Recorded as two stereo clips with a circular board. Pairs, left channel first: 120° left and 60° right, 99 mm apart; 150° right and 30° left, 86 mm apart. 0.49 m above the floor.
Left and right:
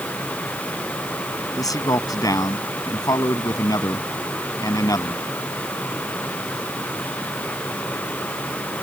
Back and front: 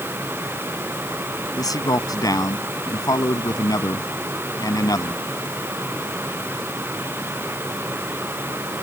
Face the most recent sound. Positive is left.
turn(degrees=170)